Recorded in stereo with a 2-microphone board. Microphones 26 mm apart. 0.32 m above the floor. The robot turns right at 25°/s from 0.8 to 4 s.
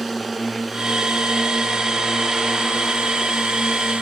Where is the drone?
175° right; by 4.0 s 95° right.